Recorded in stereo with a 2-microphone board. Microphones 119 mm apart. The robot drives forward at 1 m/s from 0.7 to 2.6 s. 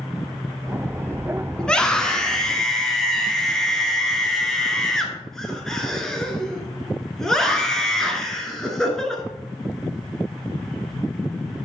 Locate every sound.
1.6 s a scream: 10° left (ahead or behind), 1.0 m; by 9.2 s 5° left (ahead or behind), 1.6 m